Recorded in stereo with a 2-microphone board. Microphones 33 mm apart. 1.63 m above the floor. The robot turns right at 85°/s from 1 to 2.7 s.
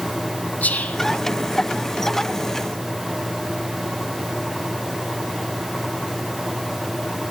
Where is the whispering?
50° left (ahead or behind), 0.7 m.